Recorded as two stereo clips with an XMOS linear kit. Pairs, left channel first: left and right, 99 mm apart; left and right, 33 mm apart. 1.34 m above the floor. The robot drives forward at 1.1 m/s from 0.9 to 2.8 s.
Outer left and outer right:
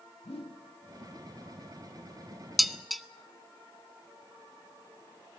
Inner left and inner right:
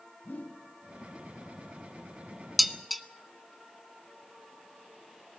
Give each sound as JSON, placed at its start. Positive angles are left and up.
{"t": 0.2, "sound": "a whoosh", "side_deg": 80, "distance_m": 2.5}
{"t": 2.6, "sound": "dishes clattering", "side_deg": 0, "distance_m": 0.8}